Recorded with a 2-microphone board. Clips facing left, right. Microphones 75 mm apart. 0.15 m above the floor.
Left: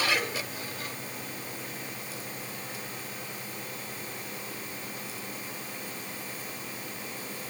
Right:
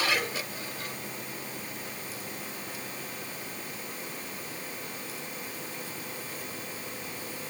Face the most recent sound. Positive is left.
No sound to turn to.